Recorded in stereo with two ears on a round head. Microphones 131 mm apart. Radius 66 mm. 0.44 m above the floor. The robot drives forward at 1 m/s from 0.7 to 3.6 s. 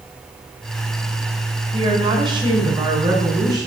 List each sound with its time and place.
1.7 s a woman speaking: 35° right (ahead or behind), 3.5 m; by 3.7 s 25° right (ahead or behind), 5 m